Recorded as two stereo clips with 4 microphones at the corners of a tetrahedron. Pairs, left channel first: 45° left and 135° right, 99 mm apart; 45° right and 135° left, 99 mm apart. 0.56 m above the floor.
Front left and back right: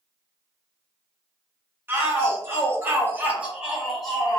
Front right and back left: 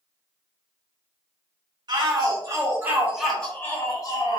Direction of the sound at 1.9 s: 165° left.